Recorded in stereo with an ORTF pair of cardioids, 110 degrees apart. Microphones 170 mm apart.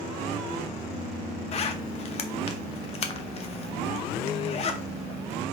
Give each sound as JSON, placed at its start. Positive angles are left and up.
{"t": 1.5, "sound": "a zipper", "azimuth_deg": 35, "distance_m": 0.6}